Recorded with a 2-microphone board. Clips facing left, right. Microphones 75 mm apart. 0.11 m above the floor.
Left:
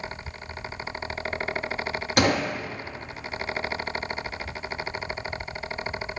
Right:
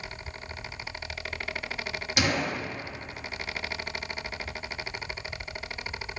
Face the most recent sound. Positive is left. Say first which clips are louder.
# left 5 dB
turn(degrees=50)  # may be behind; listen again after turning